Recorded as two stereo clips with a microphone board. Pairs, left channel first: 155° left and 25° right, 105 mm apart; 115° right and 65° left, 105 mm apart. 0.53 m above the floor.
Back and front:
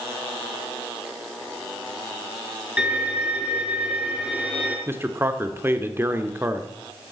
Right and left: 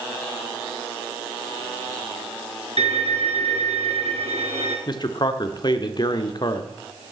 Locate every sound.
2.8 s a violin: 55° left, 3.5 m
4.9 s a man speaking: 85° right, 1.2 m